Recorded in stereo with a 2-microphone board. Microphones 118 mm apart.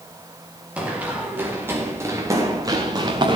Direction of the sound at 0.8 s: 10° right (ahead or behind).